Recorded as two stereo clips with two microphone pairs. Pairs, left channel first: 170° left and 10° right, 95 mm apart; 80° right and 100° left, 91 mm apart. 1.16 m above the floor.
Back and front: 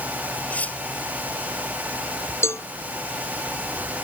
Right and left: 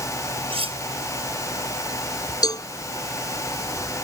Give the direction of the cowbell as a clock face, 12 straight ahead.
4 o'clock.